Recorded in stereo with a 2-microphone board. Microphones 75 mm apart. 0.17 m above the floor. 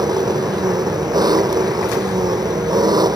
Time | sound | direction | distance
0.0 | an engine running | 65° right (ahead or behind) | ?